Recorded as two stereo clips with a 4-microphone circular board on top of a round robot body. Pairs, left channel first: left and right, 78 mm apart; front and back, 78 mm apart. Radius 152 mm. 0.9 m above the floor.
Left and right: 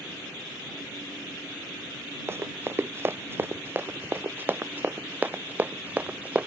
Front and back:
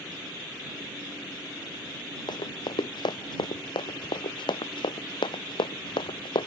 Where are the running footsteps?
30° right; by 6.5 s 15° right.